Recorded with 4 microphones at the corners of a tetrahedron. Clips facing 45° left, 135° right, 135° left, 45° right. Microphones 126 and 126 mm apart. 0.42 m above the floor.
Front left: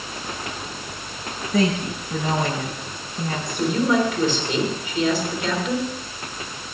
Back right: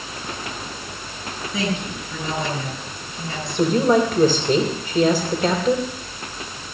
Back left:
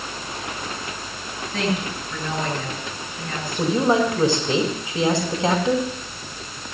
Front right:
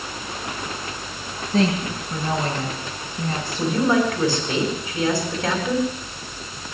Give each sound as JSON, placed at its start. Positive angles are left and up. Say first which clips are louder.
{"t": 1.5, "sound": "a woman speaking", "louder": "front left 5 dB, front right 4 dB", "azimuth_deg": 5, "distance_m": 7.0}
{"t": 3.6, "sound": "a woman speaking", "louder": "back right 3 dB, back left 1 dB", "azimuth_deg": -165, "distance_m": 2.5}